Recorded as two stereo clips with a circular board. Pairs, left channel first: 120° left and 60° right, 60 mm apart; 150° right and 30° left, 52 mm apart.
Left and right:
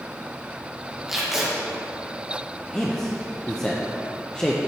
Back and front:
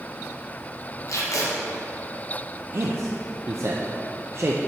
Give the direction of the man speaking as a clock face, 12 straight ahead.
10 o'clock.